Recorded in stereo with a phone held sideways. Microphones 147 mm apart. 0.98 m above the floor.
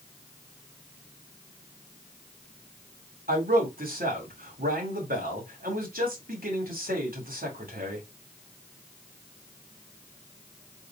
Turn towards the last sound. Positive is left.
turn(degrees=-85)